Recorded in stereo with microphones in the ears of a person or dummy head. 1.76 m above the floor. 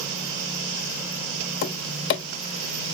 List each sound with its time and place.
1.6 s tapping: 65° left (ahead or behind), 1.0 m